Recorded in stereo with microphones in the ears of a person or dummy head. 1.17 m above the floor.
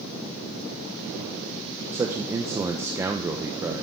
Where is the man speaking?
15° right (ahead or behind), 0.6 m.